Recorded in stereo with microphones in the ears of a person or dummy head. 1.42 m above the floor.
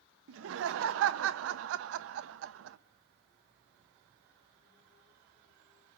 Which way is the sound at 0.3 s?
75° right (ahead or behind).